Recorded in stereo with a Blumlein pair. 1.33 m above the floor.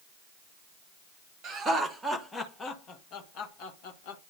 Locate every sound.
1.4 s laughter: 20° right, 1.1 m; by 4.2 s 50° left, 1.9 m